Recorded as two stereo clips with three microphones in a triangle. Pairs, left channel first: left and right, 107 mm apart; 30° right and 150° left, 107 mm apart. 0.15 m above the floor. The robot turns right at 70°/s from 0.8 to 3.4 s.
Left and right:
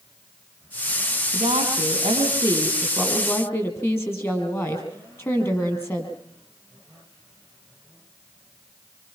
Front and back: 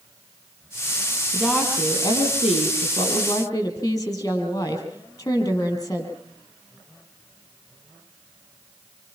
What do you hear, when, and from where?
1.3 s a woman speaking: 120° right, 5 m; by 6.1 s 25° left, 5 m